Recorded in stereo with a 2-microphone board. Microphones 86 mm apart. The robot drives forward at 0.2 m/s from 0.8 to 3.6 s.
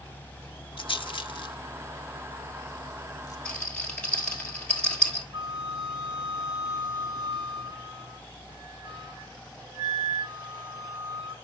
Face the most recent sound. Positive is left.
turn(degrees=-55)  # may be behind; listen again after turning